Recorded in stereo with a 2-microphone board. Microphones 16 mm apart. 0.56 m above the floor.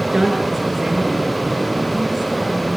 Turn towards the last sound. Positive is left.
turn(degrees=-40)  # may be behind; listen again after turning